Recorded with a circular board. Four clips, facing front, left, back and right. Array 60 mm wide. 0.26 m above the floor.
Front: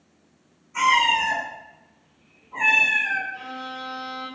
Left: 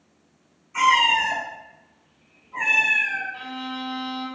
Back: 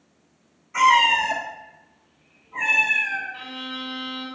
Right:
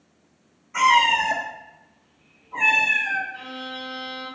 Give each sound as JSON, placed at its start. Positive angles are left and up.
{"t": 0.7, "sound": "a cat meowing", "azimuth_deg": -135, "distance_m": 1.4}
{"t": 3.3, "sound": "a violin", "azimuth_deg": 150, "distance_m": 1.4}